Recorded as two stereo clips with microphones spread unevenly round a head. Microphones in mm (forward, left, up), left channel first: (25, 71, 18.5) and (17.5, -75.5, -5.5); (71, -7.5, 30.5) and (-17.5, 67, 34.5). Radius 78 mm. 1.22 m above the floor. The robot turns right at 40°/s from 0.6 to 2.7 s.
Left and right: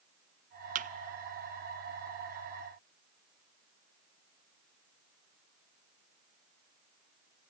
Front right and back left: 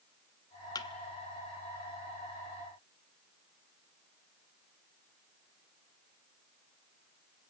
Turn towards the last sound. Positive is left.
turn(degrees=-20)